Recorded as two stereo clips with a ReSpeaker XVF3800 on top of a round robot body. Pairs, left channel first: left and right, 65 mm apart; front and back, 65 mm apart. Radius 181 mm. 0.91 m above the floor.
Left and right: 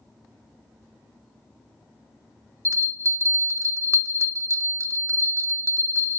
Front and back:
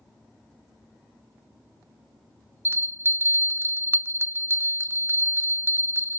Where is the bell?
125° right, 0.9 m.